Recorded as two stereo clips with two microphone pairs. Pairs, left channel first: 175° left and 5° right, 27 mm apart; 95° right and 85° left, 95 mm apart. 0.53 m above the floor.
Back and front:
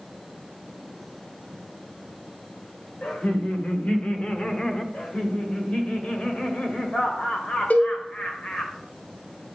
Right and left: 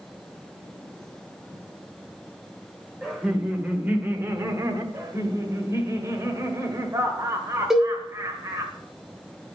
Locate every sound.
3.0 s laughter: 165° left, 1.9 m; by 4.8 s 120° left, 1.1 m
4.9 s laughter: 140° left, 1.9 m
7.7 s a cowbell: 170° left, 1.4 m